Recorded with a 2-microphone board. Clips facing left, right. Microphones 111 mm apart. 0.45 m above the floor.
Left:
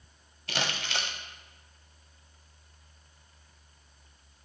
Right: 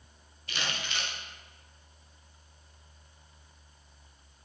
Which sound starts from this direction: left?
Crumpling, at 0.5 s.